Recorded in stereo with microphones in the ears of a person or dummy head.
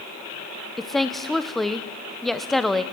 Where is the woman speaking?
Centre (ahead or behind), 0.7 m.